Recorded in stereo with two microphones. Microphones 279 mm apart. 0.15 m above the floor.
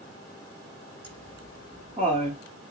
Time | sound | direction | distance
1.0 | laughter | 20° right (ahead or behind) | 1.3 m